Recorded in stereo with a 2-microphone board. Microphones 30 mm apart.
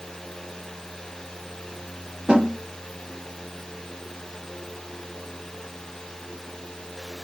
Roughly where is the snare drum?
Right.